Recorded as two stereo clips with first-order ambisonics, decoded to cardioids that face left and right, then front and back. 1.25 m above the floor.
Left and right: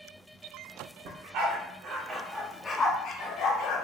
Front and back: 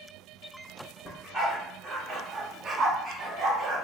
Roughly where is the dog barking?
Right.